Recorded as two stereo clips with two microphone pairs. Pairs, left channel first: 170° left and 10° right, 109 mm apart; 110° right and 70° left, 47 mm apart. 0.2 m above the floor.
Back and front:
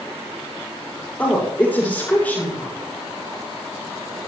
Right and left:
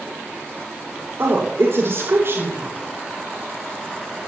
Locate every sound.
1.2 s a woman speaking: 90° left, 7 m